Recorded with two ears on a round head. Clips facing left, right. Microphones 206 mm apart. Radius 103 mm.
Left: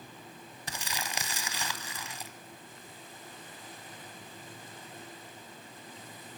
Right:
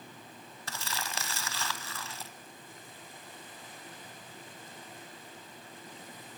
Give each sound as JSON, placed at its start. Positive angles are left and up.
{"t": 0.7, "sound": "crumpling", "side_deg": 15, "distance_m": 1.5}